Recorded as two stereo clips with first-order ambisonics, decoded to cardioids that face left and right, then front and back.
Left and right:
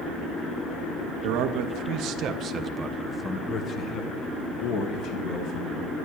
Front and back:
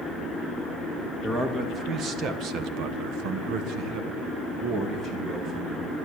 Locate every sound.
1.2 s a man speaking: 110° right, 1.9 m; by 5.9 s 115° left, 3 m